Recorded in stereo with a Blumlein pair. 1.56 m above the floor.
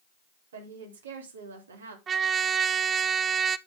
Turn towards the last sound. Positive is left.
turn(degrees=-25)